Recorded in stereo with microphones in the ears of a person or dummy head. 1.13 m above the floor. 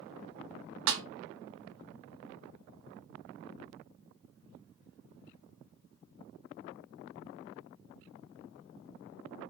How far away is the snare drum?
About 0.5 m.